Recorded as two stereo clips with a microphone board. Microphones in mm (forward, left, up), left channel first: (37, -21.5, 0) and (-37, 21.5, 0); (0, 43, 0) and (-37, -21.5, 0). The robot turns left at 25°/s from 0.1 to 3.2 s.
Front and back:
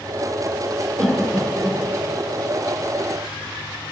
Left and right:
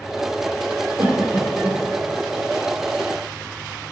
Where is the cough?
105° right, 2 m; by 1.8 s 125° right, 2 m.